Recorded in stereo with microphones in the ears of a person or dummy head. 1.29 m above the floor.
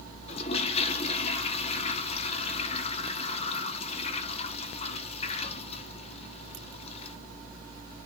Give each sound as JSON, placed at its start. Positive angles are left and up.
{"t": 0.3, "sound": "a toilet flushing", "side_deg": 30, "distance_m": 0.7}